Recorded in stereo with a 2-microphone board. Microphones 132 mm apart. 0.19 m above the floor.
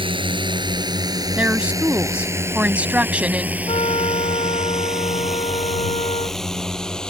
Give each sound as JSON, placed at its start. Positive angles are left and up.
{"t": 0.0, "sound": "a drone", "side_deg": -40}
{"t": 1.4, "sound": "a woman speaking", "side_deg": -10}
{"t": 3.7, "sound": "a trumpet", "side_deg": 50}